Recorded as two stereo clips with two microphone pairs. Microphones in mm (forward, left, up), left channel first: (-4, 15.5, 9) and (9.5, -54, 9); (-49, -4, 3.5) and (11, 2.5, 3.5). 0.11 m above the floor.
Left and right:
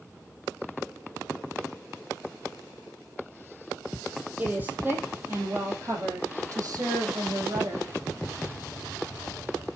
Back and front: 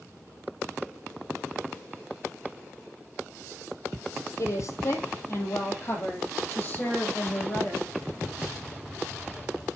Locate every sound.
4.4 s a woman speaking: 145° right, 3 m; by 7.9 s 105° right, 4.5 m